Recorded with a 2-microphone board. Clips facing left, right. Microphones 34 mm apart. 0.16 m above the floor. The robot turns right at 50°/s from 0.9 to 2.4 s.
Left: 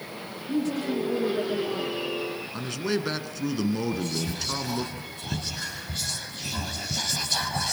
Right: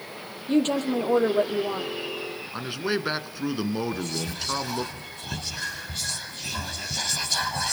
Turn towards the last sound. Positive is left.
turn(degrees=5)  # may be behind; listen again after turning